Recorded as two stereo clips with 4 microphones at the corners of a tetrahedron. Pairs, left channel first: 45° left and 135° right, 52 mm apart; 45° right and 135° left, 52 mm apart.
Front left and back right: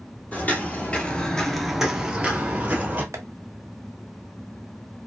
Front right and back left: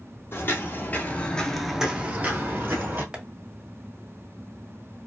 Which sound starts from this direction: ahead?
Footsteps, at 0.3 s.